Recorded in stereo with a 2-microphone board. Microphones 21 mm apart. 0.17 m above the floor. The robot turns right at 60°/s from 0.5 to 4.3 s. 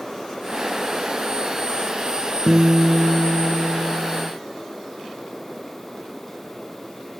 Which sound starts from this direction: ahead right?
A guitar, at 2.5 s.